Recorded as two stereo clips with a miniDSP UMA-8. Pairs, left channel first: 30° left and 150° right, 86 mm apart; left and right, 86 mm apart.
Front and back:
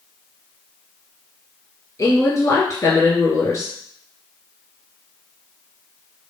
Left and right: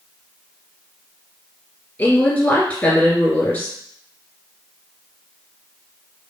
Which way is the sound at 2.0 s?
35° left.